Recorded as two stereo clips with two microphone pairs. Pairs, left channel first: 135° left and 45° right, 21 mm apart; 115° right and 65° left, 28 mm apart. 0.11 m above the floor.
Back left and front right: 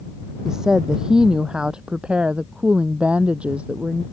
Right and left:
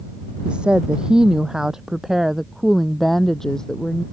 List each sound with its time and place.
0.5 s a woman speaking: 20° left; by 4.0 s 50° right